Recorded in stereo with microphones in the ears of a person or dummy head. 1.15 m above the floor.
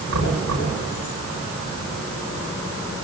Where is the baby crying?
I don't hear a baby crying.